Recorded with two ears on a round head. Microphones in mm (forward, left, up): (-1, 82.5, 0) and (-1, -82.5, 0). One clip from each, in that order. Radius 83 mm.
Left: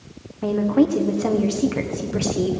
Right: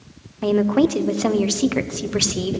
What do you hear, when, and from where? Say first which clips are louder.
0.4 s a woman speaking: right 2 dB; 75° right (ahead or behind), 1.0 m